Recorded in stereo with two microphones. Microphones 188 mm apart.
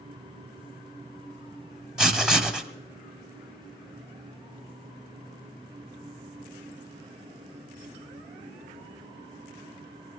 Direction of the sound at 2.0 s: 5° right (ahead or behind).